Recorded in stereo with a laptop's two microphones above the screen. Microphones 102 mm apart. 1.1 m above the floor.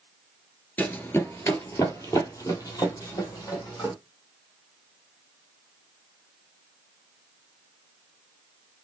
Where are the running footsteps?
20° left (ahead or behind), 1.1 m; by 3.9 s 35° left (ahead or behind), 3 m.